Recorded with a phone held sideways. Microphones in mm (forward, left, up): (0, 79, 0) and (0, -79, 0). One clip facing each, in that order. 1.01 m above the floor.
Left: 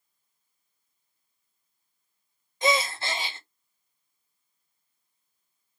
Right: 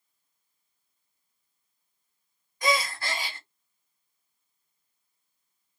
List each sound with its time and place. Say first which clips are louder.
2.6 s a gasp: left 2 dB; 25° left (ahead or behind), 0.7 m